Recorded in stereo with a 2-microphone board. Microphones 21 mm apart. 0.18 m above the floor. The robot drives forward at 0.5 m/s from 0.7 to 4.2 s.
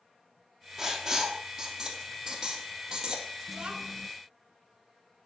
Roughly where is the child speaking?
Right.